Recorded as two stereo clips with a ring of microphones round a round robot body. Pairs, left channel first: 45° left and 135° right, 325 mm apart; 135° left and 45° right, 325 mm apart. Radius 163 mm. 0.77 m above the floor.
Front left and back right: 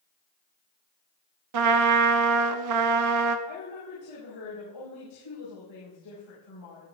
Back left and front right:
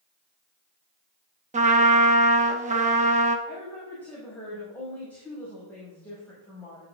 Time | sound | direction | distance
1.5 | a trumpet | 110° right | 1.1 m
3.5 | a woman speaking | 50° left | 5.5 m